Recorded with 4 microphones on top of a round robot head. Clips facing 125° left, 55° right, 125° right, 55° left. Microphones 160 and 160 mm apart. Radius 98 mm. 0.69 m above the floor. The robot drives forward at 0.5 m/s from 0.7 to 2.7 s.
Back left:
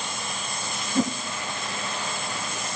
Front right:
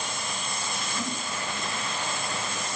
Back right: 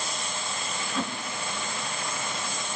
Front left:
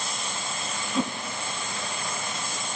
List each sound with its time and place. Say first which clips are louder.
0.9 s a whoosh: back left 12 dB, front left 5 dB; 120° left, 1.1 m; by 1.1 s 130° left, 1.1 m